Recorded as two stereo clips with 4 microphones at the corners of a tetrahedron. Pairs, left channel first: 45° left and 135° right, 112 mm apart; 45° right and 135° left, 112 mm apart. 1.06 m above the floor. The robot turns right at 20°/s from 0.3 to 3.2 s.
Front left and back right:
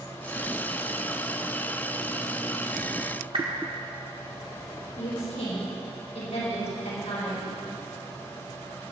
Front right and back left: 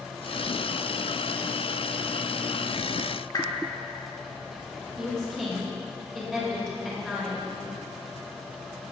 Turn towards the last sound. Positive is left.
turn(degrees=40)